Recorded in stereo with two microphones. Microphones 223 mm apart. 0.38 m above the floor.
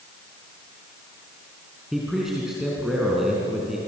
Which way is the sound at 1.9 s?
Centre (ahead or behind).